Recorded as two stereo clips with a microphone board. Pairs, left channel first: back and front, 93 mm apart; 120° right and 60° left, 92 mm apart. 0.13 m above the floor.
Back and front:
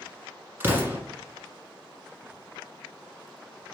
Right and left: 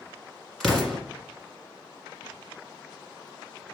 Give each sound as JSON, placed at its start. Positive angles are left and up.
{"t": 0.6, "sound": "an explosion", "azimuth_deg": -25, "distance_m": 1.4}